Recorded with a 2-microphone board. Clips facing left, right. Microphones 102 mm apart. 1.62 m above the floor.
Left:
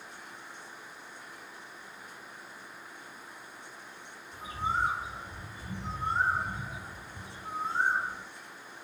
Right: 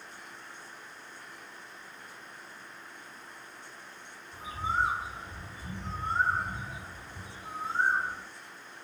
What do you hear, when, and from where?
4.3 s a bird: 5° right (ahead or behind), 2.5 m